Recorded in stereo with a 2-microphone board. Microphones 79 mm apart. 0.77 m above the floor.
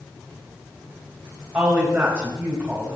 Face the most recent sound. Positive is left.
turn(degrees=-20)  # may be behind; listen again after turning